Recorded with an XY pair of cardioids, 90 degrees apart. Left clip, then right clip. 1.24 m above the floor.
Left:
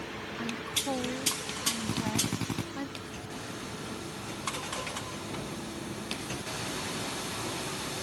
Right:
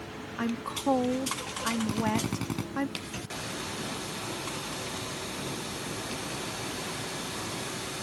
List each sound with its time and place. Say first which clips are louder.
0.4 s a woman speaking: right 1 dB; 60° right
1.9 s a drill: right 2 dB; 5° right